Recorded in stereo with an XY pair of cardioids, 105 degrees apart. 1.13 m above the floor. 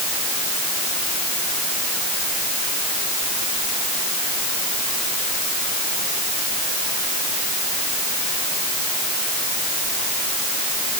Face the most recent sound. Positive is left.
No sound to turn to.